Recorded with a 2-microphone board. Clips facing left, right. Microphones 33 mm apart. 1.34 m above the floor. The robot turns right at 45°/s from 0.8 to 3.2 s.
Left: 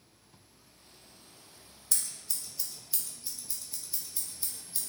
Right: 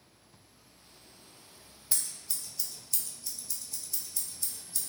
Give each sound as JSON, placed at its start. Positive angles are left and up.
{"t": 1.9, "sound": "scissors", "side_deg": -15, "distance_m": 0.6}